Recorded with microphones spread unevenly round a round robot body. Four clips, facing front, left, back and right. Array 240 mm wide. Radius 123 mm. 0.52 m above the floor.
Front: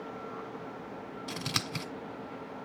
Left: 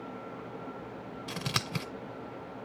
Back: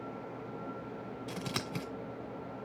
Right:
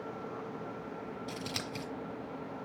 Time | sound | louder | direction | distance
1.3 | scissors | left 3 dB, front 1 dB | 65° left | 1.7 m